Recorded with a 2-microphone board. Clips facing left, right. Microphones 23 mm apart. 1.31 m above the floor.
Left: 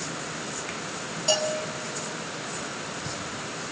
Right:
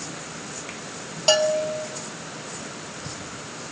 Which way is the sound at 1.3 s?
45° right (ahead or behind).